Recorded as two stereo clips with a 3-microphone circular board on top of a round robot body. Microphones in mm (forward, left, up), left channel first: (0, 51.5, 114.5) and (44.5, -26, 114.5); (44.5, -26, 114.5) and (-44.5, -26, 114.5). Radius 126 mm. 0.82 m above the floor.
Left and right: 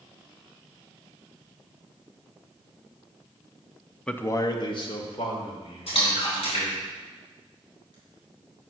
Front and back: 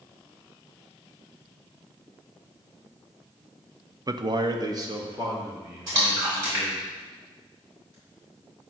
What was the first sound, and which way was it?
A man speaking, 160° right.